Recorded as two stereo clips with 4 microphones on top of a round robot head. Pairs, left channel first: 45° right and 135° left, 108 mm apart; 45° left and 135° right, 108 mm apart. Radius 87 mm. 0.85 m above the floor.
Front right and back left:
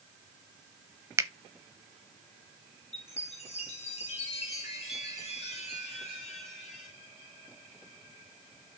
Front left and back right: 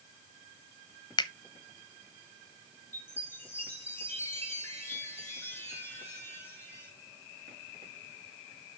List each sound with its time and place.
1.2 s a finger snap: 80° left, 1.1 m
2.9 s a chime: 25° right, 4 m